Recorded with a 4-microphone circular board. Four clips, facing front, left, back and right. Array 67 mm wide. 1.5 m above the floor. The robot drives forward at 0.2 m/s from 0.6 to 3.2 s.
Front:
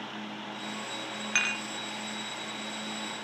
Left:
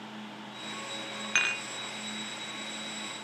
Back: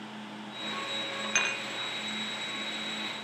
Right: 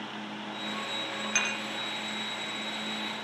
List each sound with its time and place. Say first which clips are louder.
1.4 s dishes clattering: left 3 dB, front 1 dB; 80° left, 0.5 m; by 1.6 s 100° left, 0.5 m